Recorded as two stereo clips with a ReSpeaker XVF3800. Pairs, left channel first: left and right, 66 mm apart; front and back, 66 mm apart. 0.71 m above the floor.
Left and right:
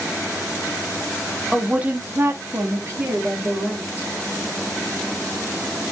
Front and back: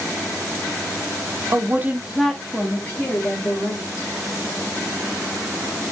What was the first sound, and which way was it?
A woman speaking, 170° right.